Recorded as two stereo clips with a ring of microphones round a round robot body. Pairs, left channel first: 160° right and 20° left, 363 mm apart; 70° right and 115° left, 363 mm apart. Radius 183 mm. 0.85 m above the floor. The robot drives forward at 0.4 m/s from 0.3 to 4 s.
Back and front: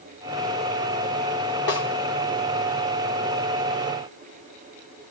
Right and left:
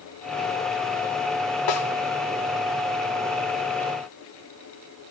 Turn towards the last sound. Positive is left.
turn(degrees=-115)